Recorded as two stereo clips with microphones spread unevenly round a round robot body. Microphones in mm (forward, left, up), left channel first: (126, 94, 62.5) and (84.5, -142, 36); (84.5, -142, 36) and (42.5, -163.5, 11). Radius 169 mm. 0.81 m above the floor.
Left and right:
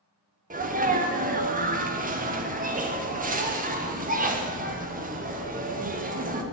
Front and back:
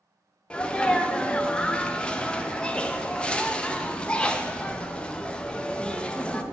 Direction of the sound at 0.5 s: 75° right.